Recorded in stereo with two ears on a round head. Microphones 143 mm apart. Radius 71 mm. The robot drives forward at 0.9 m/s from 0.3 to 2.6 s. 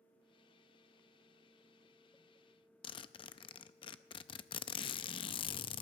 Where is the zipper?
30° left (ahead or behind), 0.6 m.